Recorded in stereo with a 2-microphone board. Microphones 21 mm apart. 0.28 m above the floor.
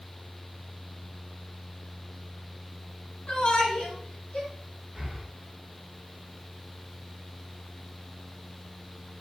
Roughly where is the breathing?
Centre.